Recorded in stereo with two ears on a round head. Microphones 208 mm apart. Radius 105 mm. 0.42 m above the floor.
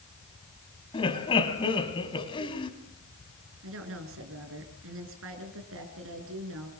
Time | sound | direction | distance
0.9 | laughter | 20° left (ahead or behind) | 3 m
3.6 | a woman speaking | 65° right (ahead or behind) | 7 m